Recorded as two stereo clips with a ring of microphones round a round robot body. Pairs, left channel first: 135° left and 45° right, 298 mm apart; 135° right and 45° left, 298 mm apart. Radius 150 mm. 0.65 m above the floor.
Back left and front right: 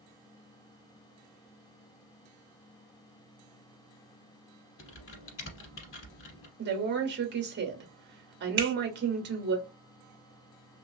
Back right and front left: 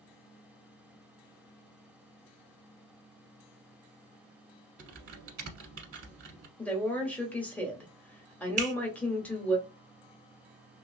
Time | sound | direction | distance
4.8 | typing on a keyboard | 90° left | 1.1 m
6.6 | a woman speaking | 55° right | 1.0 m
8.6 | a finger snap | 10° right | 1.0 m